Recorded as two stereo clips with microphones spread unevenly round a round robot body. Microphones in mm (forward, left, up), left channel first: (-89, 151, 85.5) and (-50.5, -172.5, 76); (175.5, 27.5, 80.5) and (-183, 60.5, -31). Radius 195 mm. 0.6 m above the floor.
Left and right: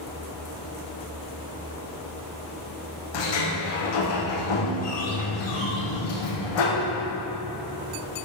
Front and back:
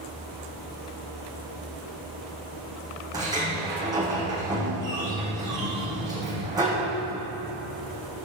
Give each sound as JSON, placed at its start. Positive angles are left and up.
{"t": 3.1, "sound": "a sliding door", "azimuth_deg": 95, "distance_m": 5.5}